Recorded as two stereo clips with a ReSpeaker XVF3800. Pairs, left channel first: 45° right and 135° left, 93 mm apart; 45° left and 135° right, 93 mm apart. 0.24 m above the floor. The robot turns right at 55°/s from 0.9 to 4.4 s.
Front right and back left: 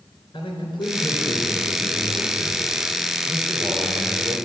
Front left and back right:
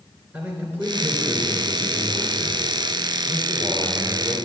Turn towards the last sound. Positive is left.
turn(degrees=125)